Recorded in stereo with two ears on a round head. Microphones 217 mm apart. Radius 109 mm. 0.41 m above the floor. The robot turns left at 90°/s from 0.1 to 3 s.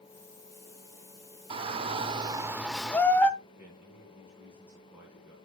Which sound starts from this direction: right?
A shout, at 1.5 s.